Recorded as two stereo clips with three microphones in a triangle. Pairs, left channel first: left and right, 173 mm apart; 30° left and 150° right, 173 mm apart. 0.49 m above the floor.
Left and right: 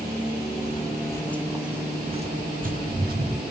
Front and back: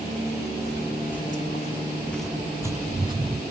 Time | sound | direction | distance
0.6 | footsteps | 35° left | 1.0 m